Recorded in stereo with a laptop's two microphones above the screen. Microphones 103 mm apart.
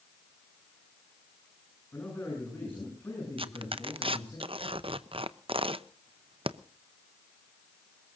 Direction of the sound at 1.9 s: 20° left (ahead or behind).